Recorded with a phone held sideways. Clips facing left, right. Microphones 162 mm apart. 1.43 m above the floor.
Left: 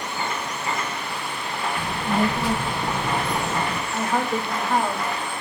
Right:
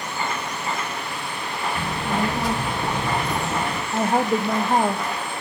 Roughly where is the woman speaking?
Right.